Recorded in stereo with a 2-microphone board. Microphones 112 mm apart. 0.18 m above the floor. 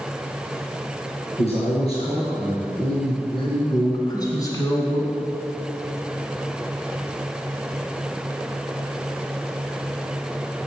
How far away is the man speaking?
About 3 m.